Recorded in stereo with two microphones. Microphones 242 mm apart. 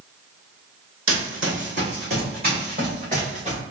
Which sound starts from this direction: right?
Running footsteps, at 1.1 s.